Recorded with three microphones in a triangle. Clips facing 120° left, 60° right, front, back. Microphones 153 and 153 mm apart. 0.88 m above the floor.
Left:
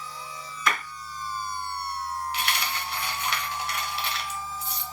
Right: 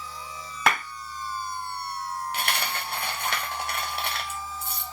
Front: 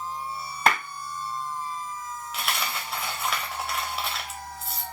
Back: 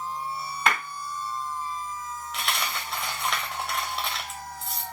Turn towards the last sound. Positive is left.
turn(degrees=-85)